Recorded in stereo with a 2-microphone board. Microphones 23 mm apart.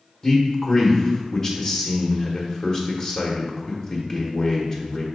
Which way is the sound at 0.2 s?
20° left (ahead or behind).